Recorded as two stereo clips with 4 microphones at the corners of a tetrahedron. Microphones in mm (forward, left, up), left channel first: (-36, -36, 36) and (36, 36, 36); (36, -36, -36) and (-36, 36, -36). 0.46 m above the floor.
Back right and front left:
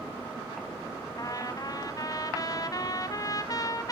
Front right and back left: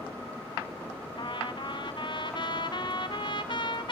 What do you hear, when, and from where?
1.2 s a trumpet: 85° right, 1.6 m